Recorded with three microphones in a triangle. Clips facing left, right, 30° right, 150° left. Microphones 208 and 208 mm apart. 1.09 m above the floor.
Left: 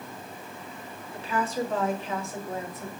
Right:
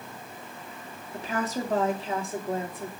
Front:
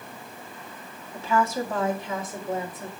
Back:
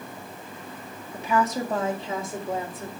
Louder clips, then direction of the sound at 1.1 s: Left 1 dB, even; 135° right.